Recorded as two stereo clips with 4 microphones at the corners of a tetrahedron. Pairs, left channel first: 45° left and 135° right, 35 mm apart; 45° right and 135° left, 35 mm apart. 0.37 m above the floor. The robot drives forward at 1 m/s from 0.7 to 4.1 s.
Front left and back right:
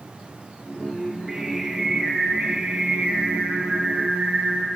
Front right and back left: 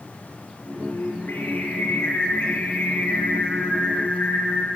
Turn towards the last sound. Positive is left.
turn(degrees=-95)